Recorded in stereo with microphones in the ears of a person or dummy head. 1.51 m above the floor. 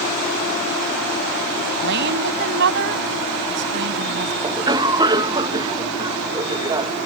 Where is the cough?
25° right (ahead or behind).